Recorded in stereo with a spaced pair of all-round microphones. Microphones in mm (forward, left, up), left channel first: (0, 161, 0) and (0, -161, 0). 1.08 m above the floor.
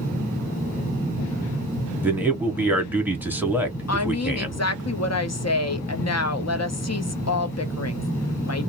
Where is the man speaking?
5° right (ahead or behind), 0.7 m.